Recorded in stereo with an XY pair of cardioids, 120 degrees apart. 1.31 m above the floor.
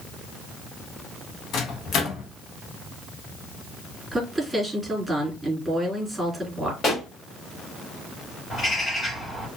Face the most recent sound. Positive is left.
turn(degrees=30)